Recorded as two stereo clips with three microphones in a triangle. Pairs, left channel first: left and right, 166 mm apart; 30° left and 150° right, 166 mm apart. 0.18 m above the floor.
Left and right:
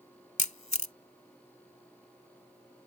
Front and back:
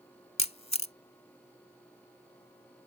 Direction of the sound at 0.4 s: 65° left.